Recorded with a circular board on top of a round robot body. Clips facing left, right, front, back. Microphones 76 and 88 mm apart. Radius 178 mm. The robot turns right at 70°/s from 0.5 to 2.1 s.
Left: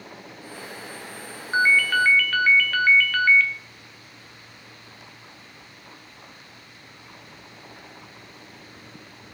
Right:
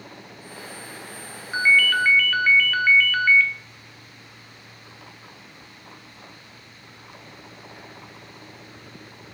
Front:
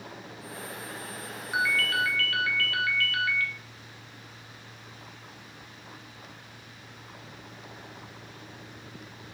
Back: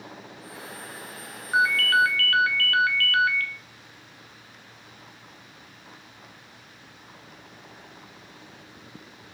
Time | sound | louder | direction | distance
1.5 | a ringtone | even, back 6 dB | 145° left | 0.5 m